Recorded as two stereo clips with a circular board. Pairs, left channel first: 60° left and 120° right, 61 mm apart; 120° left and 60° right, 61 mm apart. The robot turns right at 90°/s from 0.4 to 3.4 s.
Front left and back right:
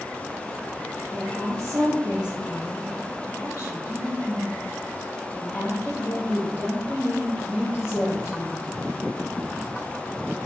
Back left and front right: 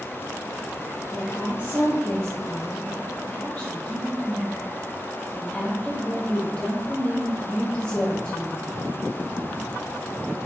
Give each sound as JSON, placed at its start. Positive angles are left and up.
{"t": 1.1, "sound": "a woman speaking", "azimuth_deg": -155, "distance_m": 2.0}